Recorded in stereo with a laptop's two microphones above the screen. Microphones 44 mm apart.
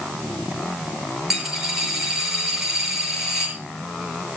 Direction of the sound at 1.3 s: 10° right (ahead or behind).